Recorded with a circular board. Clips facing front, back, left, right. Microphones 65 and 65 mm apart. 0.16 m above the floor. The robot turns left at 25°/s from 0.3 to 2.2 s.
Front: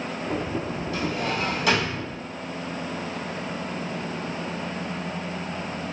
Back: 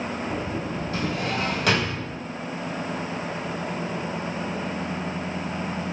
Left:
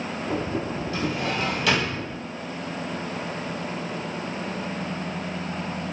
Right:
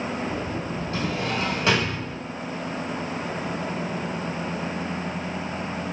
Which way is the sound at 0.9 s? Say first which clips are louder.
Even, even; 130° right.